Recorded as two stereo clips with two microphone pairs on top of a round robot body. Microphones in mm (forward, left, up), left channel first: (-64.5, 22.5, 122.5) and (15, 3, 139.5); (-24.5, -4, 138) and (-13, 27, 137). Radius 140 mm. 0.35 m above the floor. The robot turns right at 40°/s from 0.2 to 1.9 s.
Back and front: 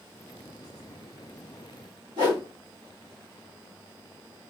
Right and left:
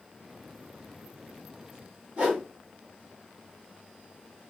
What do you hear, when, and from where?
2.2 s a whoosh: 15° left, 1.7 m